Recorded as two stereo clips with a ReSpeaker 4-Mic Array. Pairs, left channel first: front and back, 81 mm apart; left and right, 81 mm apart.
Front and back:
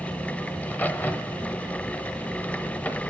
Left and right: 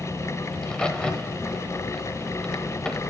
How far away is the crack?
About 0.9 m.